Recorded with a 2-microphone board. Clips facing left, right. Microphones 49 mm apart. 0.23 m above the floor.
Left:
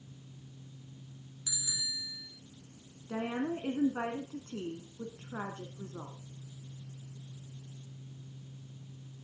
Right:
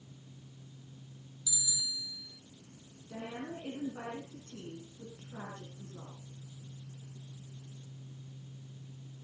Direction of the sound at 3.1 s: 60° left (ahead or behind).